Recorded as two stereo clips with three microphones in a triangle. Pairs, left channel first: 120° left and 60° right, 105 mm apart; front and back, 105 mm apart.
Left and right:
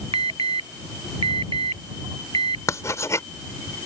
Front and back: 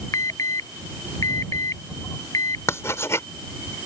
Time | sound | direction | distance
0.1 | an alarm | 55° right | ?
2.7 | writing | 60° left | ?